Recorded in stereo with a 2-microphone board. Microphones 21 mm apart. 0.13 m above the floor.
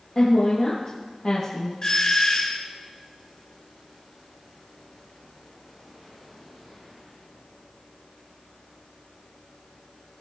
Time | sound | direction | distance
0.1 | a woman speaking | 55° left (ahead or behind) | 4 m
1.8 | a doorbell | 35° left (ahead or behind) | 2.5 m